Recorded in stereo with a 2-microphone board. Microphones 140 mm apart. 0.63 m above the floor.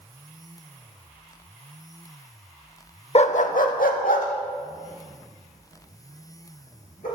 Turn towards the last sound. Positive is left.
turn(degrees=75)  # may be behind; listen again after turning